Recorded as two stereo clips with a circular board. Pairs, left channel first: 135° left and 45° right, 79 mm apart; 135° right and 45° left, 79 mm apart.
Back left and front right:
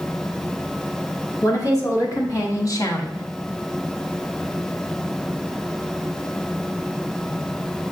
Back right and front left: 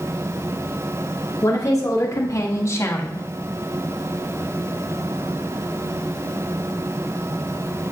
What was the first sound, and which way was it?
A woman speaking, straight behind.